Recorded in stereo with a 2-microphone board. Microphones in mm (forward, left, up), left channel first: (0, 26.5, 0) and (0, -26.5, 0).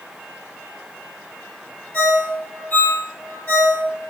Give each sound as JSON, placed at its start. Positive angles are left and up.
{"t": 1.9, "sound": "a ringtone", "side_deg": 40, "distance_m": 1.2}